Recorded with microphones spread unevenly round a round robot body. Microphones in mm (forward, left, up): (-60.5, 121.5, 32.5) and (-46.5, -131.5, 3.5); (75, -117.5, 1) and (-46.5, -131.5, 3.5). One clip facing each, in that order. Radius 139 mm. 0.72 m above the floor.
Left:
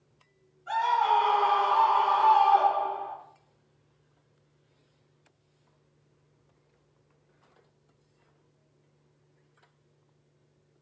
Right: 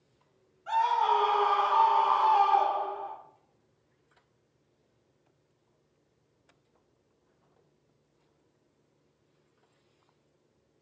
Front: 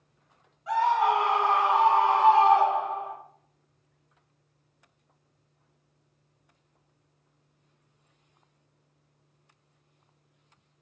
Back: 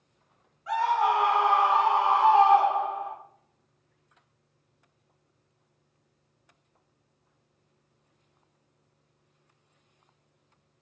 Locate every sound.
0.7 s a scream: 60° right, 2.0 m; by 3.1 s straight ahead, 1.5 m